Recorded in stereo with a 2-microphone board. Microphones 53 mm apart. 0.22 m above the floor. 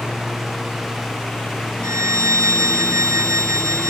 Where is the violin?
70° right (ahead or behind).